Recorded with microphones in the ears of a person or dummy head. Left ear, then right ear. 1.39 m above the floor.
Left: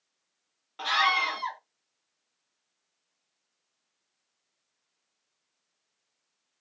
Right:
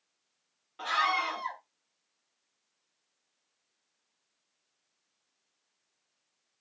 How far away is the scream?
About 0.9 m.